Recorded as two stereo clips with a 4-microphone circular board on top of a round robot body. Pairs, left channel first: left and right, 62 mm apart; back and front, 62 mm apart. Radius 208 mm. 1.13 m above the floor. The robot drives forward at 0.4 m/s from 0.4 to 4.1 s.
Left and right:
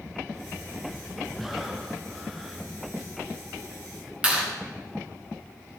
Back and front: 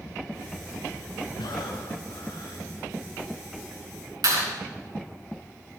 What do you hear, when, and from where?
1.4 s breathing: straight behind, 0.7 m
4.2 s a clap: 20° right, 4.5 m